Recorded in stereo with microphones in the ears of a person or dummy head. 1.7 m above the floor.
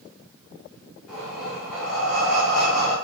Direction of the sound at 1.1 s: Centre (ahead or behind).